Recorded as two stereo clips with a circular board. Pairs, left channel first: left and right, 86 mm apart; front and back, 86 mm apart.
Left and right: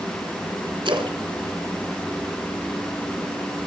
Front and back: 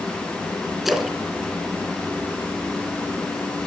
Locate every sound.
0.8 s a splash: 95° right, 2.5 m